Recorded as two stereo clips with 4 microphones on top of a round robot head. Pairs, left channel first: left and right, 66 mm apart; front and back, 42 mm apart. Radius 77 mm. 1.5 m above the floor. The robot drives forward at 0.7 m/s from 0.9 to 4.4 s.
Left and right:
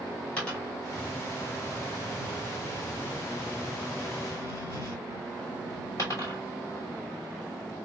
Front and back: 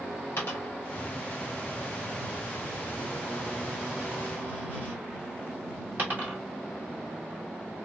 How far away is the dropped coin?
About 2.0 m.